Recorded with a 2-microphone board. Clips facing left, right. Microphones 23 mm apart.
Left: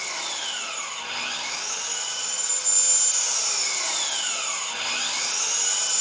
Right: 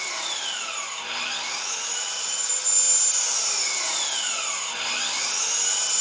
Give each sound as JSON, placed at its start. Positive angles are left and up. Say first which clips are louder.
{"t": 0.0, "sound": "an engine running", "louder": "right 1 dB", "side_deg": 10, "distance_m": 2.5}